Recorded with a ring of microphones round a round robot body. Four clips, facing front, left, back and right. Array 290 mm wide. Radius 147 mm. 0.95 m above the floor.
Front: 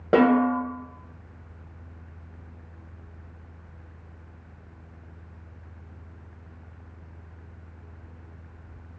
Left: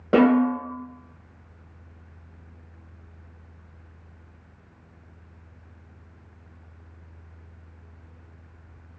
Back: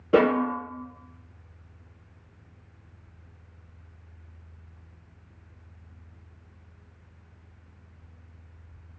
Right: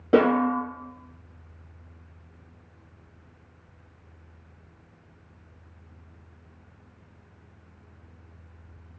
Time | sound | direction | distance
0.1 | a snare drum | 5° left | 1.7 m